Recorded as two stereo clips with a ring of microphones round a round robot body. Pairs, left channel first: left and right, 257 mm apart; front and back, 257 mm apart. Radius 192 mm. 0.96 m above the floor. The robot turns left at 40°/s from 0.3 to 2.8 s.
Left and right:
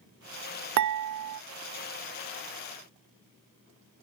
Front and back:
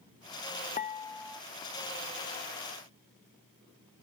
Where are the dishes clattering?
70° right; by 1.4 s 95° right.